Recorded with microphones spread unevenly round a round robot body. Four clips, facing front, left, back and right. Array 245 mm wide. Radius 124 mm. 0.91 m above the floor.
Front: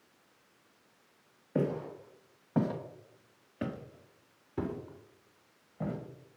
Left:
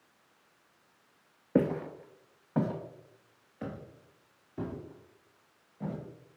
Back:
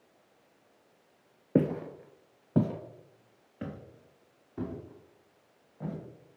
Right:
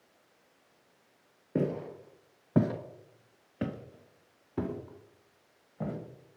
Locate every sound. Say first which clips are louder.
1.6 s footsteps: left 3 dB, back 5 dB; 155° left, 1.2 m; by 6.0 s 40° right, 4 m